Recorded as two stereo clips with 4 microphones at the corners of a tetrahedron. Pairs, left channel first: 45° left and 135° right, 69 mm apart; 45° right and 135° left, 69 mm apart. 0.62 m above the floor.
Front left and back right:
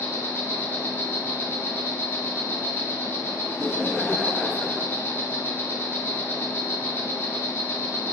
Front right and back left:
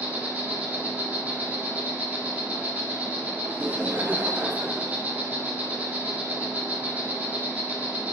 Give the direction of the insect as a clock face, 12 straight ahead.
9 o'clock.